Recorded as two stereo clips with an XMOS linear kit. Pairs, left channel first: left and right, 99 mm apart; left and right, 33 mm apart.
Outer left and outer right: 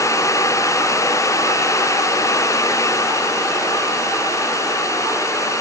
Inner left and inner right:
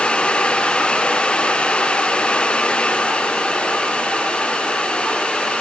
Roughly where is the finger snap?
I don't hear a finger snap.